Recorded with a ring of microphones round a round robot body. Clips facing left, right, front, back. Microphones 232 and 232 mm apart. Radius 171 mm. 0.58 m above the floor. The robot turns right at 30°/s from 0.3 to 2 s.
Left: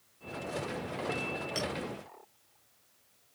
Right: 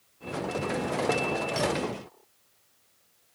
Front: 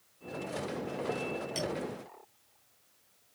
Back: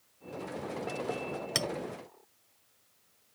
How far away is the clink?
About 1.1 m.